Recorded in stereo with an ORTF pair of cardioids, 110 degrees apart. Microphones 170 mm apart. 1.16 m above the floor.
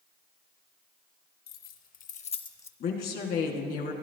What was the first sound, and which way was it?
Keys jangling, 65° left.